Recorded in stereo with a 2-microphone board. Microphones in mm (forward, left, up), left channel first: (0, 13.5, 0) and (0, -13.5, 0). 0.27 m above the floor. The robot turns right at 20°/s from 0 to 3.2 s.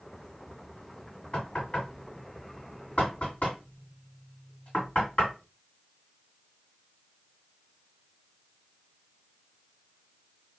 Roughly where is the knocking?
Left.